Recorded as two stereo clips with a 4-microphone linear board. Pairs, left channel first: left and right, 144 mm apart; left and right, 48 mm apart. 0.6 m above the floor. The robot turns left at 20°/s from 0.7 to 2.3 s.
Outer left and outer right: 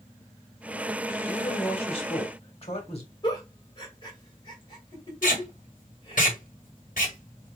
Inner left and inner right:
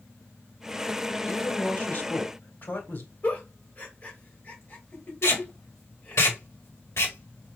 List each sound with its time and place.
1.3 s a woman speaking: 25° left (ahead or behind), 1.7 m; by 3.1 s 45° left (ahead or behind), 1.7 m
3.2 s a giggle: 35° left (ahead or behind), 1.9 m
5.2 s tape being pulled: 70° left (ahead or behind), 1.5 m